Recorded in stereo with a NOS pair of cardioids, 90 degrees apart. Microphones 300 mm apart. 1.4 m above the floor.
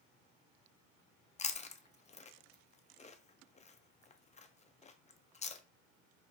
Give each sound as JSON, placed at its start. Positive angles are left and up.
{"t": 1.4, "sound": "chewing", "azimuth_deg": 25, "distance_m": 0.6}